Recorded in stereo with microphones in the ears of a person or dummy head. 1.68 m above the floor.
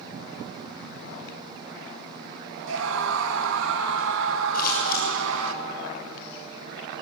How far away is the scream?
About 2.5 m.